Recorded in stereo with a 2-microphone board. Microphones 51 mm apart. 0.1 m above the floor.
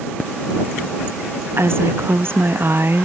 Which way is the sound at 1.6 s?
50° right (ahead or behind).